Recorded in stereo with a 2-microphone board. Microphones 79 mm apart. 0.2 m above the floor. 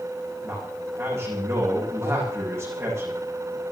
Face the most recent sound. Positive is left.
turn(degrees=-35)  # may be behind; listen again after turning